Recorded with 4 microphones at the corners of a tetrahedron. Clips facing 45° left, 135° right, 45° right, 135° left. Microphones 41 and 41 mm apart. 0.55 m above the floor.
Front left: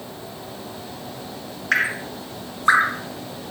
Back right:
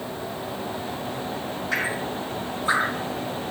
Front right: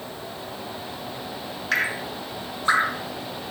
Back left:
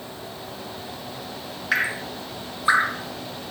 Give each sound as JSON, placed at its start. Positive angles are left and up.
{"t": 1.7, "sound": "dripping", "azimuth_deg": 55, "distance_m": 0.7}